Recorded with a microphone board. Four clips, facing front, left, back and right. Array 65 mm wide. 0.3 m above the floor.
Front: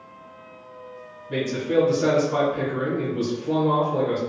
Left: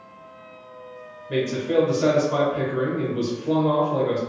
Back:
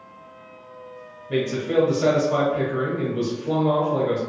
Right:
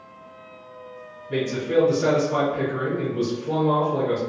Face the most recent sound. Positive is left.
turn(degrees=140)